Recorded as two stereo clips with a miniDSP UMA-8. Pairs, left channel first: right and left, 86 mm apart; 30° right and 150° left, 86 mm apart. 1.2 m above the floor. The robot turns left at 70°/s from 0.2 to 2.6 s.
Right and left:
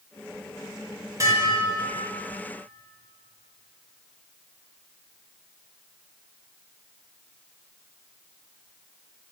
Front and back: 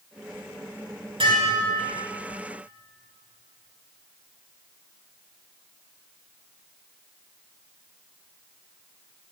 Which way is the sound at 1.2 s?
140° left.